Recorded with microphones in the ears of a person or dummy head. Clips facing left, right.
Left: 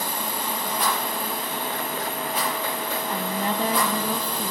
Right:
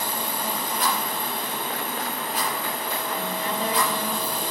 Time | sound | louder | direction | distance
0.8 | a rattle | left 1 dB | 70° left (ahead or behind) | 6.5 m
3.1 | a woman speaking | left 3 dB | 35° left (ahead or behind) | 1.0 m